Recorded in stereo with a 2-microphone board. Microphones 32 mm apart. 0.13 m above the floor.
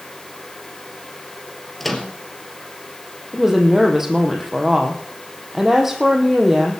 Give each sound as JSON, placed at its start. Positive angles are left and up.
{"t": 1.8, "sound": "a microwave", "side_deg": 5, "distance_m": 2.0}
{"t": 3.3, "sound": "a woman speaking", "side_deg": -10, "distance_m": 4.0}